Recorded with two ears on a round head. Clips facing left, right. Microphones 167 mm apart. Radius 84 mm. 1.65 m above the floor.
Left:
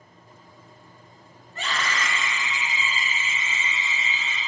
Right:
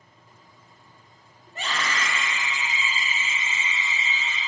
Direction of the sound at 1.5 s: 15° right (ahead or behind).